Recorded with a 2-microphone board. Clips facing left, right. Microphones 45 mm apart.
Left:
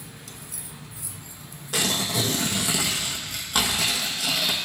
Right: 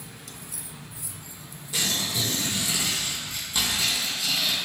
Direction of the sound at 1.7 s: 65° left (ahead or behind).